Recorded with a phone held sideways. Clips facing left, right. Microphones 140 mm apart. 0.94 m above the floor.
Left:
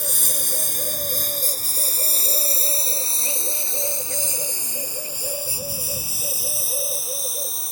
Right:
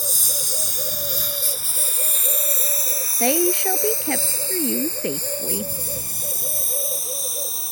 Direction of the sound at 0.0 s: 55° left (ahead or behind).